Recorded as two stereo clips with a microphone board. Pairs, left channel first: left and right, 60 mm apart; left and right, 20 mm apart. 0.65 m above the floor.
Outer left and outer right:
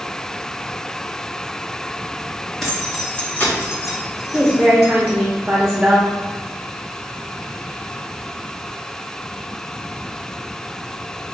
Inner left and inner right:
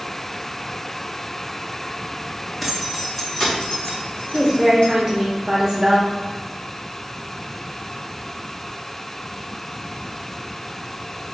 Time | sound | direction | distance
2.6 | keys jangling | 5° left (ahead or behind) | 1.2 m
4.3 | a woman speaking | 15° right (ahead or behind) | 0.7 m